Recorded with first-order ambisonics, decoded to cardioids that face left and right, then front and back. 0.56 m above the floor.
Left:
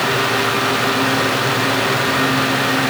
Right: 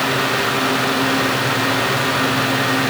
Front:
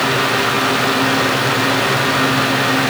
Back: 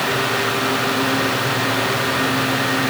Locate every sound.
Only background noise.